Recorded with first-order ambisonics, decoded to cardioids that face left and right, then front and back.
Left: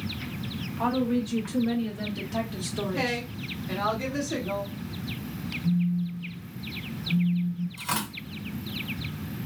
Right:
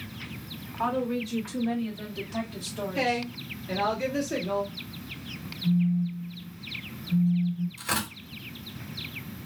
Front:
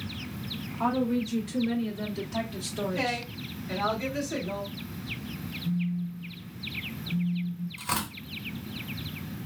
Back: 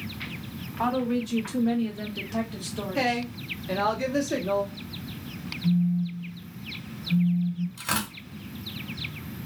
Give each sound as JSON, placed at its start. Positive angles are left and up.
{"t": 0.8, "sound": "a woman speaking", "azimuth_deg": -175, "distance_m": 1.5}
{"t": 3.0, "sound": "a woman speaking", "azimuth_deg": -175, "distance_m": 1.4}
{"t": 5.6, "sound": "a phone buzzing", "azimuth_deg": -155, "distance_m": 1.0}
{"t": 7.8, "sound": "tearing paper", "azimuth_deg": 180, "distance_m": 1.9}